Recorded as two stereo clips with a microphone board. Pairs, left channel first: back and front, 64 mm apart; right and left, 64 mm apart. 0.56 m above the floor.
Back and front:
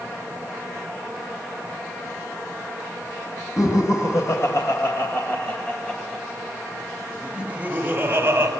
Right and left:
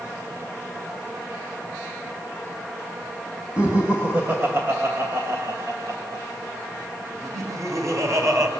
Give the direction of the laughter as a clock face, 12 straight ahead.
7 o'clock.